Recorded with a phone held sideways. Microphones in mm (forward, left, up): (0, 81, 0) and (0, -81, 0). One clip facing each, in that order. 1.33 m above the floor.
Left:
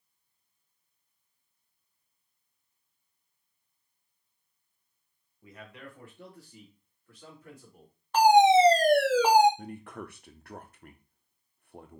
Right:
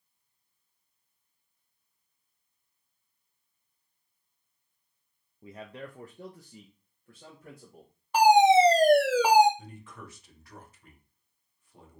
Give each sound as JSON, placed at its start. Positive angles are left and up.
{"t": 5.4, "sound": "a man speaking", "side_deg": -25, "distance_m": 0.5}
{"t": 8.1, "sound": "a fire alarm", "side_deg": -10, "distance_m": 1.4}
{"t": 9.6, "sound": "a man speaking", "side_deg": 60, "distance_m": 0.7}